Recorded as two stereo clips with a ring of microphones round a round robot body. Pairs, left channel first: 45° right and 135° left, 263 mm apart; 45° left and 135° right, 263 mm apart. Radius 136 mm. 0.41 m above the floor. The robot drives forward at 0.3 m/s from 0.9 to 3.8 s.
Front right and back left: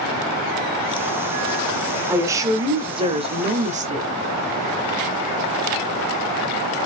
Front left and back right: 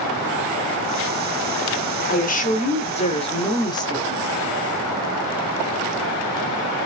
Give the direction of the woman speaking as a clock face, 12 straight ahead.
10 o'clock.